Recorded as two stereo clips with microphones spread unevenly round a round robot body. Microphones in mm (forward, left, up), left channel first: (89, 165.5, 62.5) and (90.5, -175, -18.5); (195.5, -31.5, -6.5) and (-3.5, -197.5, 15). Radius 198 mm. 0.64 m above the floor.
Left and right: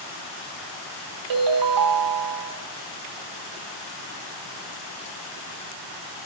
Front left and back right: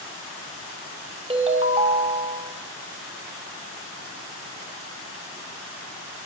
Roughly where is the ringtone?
Right.